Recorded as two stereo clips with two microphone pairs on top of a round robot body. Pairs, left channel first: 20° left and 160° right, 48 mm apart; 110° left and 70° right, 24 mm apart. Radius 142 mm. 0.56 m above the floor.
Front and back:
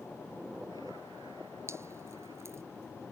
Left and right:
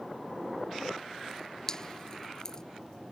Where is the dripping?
170° left.